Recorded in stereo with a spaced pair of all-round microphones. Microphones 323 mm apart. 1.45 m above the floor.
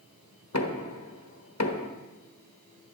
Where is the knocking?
50° left (ahead or behind), 1.3 m.